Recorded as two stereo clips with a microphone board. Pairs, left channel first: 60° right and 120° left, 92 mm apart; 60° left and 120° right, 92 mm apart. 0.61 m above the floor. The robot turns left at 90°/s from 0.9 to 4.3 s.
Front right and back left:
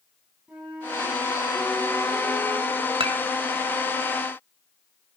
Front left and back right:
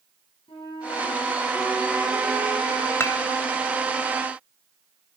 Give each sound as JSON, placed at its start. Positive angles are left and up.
{"t": 0.5, "sound": "a flute", "azimuth_deg": 45, "distance_m": 5.0}
{"t": 3.0, "sound": "dishes clattering", "azimuth_deg": 125, "distance_m": 1.9}